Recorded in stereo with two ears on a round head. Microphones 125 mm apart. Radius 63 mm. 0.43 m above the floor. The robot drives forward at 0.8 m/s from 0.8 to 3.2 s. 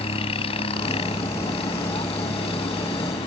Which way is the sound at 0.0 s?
45° left (ahead or behind).